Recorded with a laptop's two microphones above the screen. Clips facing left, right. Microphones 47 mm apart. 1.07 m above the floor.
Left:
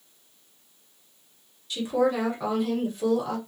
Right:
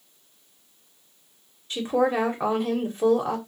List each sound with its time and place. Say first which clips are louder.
1.7 s a woman speaking: right 1 dB; 35° right (ahead or behind), 1.4 m